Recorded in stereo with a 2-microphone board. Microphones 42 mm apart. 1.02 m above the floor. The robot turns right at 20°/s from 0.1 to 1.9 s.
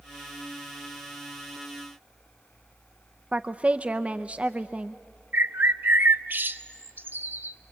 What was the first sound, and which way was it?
A woman speaking, 25° right (ahead or behind).